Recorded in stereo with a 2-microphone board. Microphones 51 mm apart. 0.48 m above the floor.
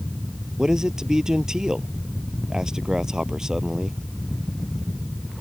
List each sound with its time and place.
0.6 s a man speaking: 15° right (ahead or behind)